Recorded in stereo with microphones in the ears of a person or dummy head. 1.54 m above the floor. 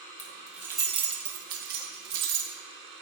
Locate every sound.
0.2 s keys jangling: 10° left (ahead or behind), 0.9 m; by 2.5 s 60° right (ahead or behind), 1.9 m